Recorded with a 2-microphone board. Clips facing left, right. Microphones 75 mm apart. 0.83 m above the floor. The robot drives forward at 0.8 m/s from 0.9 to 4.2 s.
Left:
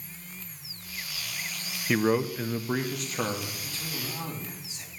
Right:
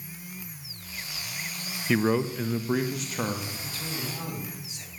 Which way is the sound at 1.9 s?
Centre (ahead or behind).